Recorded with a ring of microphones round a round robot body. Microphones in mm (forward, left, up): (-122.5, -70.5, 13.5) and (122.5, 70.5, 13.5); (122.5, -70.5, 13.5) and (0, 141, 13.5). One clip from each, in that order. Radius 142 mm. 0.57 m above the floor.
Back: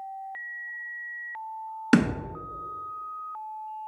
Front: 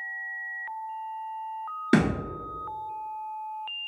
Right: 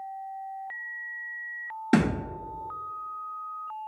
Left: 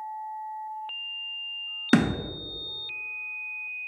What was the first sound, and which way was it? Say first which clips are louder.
A thud: back 1 dB, left 1 dB; 165° left.